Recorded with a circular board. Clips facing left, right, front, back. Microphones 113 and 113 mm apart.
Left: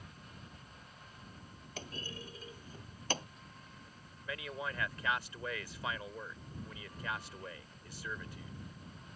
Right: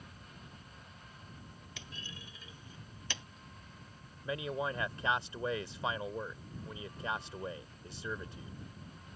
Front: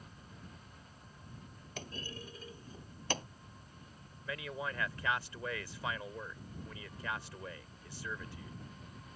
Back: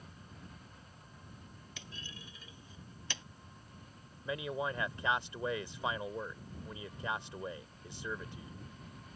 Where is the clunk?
45° left.